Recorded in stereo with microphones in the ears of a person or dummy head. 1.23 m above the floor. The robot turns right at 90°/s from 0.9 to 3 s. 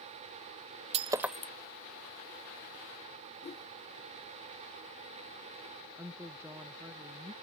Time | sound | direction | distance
0.9 | breaking glass | 35° right (ahead or behind) | ?
3.4 | a whoosh | 35° left (ahead or behind) | ?
6.0 | a woman speaking | 10° right (ahead or behind) | ?